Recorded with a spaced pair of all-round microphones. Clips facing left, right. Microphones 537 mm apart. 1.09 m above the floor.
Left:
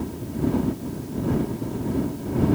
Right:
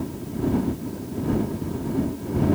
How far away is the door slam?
I don't hear a door slam.